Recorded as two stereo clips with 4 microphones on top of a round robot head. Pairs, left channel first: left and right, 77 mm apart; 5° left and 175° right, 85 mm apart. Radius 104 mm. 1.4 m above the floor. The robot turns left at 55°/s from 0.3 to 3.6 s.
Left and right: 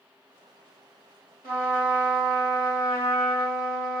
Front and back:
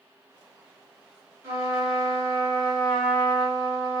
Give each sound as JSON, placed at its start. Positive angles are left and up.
{"t": 1.4, "sound": "a trumpet", "azimuth_deg": 130, "distance_m": 1.5}